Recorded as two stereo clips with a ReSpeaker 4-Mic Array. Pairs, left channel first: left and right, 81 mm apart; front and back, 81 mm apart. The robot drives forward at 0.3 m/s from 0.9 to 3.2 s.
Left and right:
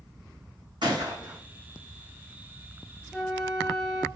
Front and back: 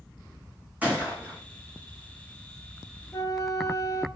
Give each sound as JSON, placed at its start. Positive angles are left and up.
{"t": 0.8, "sound": "a gunshot", "azimuth_deg": -110, "distance_m": 2.5}
{"t": 3.1, "sound": "a flute", "azimuth_deg": -10, "distance_m": 0.9}